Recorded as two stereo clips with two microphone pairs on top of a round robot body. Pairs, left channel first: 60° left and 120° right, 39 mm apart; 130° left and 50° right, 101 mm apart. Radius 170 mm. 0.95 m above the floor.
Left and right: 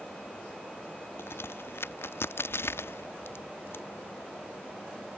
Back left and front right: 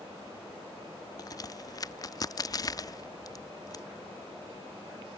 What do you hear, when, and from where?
1.2 s a crack: 75° left